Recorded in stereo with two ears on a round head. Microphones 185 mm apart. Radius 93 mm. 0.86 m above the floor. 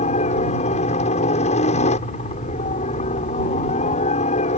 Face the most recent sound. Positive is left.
turn(degrees=35)  # may be behind; listen again after turning